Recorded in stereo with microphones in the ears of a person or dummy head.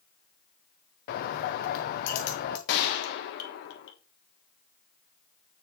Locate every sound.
1.1 s a bird: 45° left (ahead or behind), 0.7 m
2.7 s a gunshot: 60° left (ahead or behind), 1.3 m